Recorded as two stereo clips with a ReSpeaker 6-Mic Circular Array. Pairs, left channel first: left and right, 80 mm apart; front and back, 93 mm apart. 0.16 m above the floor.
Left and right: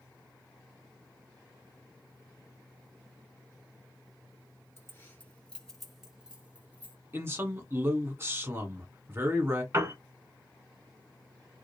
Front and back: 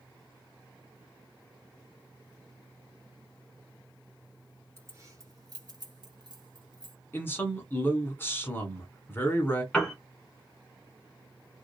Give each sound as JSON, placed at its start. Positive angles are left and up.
{"t": 4.8, "sound": "keys jangling", "azimuth_deg": 135, "distance_m": 1.0}
{"t": 7.1, "sound": "a man speaking", "azimuth_deg": -50, "distance_m": 1.2}
{"t": 9.7, "sound": "a piano", "azimuth_deg": -80, "distance_m": 1.2}